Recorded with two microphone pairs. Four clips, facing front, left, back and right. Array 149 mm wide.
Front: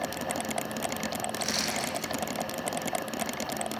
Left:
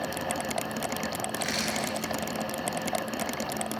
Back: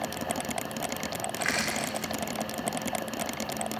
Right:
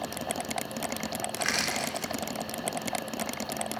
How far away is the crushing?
About 3 m.